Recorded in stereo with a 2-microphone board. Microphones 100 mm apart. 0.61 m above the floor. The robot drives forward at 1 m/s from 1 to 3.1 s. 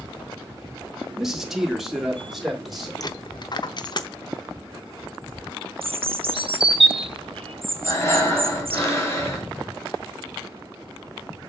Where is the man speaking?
5° right (ahead or behind), 1.1 m; by 2.9 s centre (ahead or behind), 2.5 m.